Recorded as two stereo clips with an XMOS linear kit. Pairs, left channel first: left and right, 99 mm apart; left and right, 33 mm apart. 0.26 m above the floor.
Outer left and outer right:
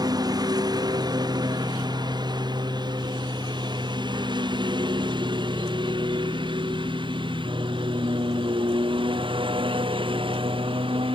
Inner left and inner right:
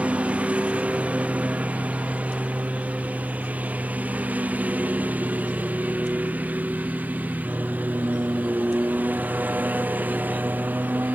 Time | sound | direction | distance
0.0 | a lawn mower | 45° right (ahead or behind) | ?